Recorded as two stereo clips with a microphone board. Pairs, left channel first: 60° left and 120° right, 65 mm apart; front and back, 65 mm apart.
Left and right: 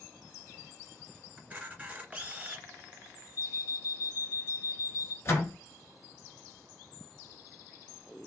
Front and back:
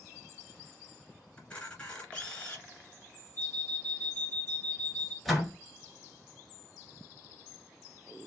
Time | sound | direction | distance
1.4 | a camera shutter | 60° right | 1.6 m
3.4 | an alarm clock | 145° right | 0.9 m
5.2 | a door slam | 90° left | 1.1 m